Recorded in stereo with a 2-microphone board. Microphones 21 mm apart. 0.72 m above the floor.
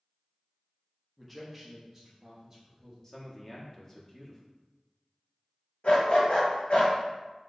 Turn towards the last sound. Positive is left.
turn(degrees=55)  # may be behind; listen again after turning